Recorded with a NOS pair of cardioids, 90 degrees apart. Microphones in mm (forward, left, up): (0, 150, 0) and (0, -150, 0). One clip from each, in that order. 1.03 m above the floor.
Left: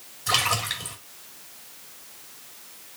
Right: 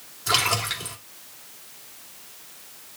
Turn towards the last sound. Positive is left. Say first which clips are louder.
# right 1 dB
turn(degrees=0)